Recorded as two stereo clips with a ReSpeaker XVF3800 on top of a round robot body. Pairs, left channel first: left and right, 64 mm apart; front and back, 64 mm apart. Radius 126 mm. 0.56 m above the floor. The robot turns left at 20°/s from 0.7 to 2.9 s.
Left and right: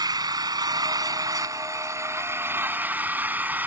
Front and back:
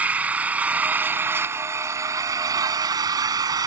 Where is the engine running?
110° right; by 3.7 s 155° right.